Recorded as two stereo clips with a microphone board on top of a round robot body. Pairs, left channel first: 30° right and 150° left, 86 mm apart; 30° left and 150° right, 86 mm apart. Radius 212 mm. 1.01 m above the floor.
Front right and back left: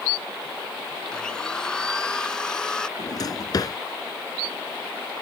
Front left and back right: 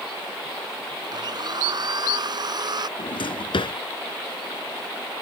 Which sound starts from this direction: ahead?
A drawer, at 3.0 s.